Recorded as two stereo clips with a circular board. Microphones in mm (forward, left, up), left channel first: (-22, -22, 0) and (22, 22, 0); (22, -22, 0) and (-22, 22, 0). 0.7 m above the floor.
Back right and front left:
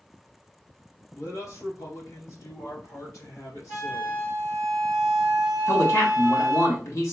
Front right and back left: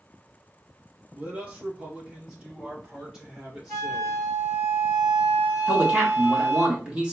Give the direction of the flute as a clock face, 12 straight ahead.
5 o'clock.